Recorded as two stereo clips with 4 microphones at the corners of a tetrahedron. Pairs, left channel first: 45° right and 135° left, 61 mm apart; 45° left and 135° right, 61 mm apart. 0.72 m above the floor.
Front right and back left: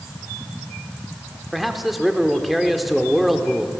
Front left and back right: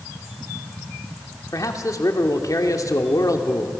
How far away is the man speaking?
About 2 m.